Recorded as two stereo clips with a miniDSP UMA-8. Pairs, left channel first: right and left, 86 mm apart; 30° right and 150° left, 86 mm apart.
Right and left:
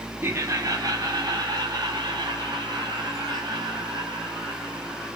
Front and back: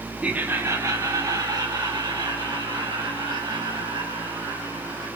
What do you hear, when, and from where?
0.2 s laughter: 90° left, 1.2 m; by 5.1 s 125° left, 7 m